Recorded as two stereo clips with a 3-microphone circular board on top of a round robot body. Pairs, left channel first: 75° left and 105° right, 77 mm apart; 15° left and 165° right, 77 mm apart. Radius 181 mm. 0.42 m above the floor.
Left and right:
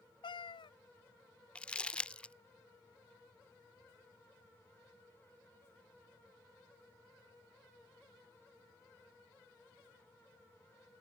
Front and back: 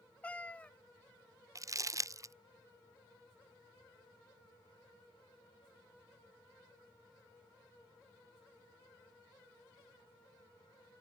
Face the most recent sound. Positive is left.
turn(degrees=150)